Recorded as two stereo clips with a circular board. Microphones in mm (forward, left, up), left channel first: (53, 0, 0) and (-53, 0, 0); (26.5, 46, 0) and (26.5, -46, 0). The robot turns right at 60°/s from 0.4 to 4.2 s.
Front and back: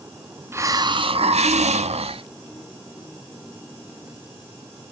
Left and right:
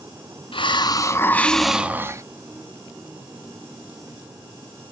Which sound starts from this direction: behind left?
A hiss, at 0.5 s.